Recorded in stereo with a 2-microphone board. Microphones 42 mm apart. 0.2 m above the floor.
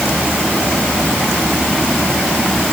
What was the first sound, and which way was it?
Only background noise.